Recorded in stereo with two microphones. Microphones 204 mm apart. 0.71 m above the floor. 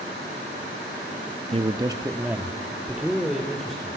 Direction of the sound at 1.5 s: 30° right (ahead or behind).